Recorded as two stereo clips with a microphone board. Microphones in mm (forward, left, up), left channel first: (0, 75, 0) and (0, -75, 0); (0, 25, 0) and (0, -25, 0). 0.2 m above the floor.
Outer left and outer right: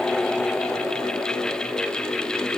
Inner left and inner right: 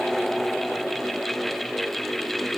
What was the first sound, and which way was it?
Only background noise.